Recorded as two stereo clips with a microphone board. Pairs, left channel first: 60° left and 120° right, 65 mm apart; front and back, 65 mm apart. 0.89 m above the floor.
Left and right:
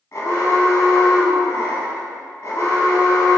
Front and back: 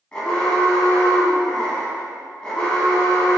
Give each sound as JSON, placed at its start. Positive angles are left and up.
{"t": 0.1, "sound": "an alarm", "azimuth_deg": 65, "distance_m": 0.8}